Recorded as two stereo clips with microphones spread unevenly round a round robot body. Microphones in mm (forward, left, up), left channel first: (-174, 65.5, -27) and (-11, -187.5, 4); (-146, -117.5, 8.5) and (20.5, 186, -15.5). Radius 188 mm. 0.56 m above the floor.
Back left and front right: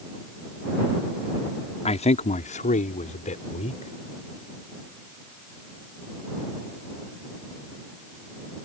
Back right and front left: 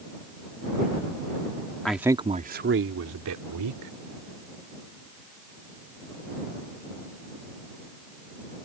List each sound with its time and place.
1.9 s a man speaking: 150° left; by 3.9 s 55° left